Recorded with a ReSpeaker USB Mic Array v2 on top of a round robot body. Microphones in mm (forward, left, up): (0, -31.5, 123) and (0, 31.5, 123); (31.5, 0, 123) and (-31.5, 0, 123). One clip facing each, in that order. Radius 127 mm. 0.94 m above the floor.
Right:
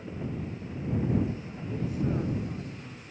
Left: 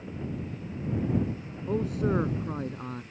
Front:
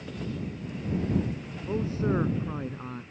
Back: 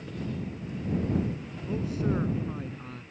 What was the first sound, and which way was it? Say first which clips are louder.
A man speaking: left 4 dB, front 2 dB; 60° left.